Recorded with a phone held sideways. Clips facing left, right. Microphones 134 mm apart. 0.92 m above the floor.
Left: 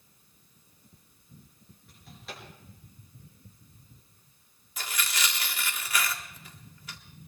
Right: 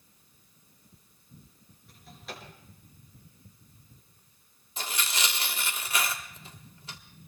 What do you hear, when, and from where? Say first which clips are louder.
1.9 s a drawer: right 1 dB; centre (ahead or behind), 6 m
4.8 s tearing paper: even; 30° right (ahead or behind), 1.4 m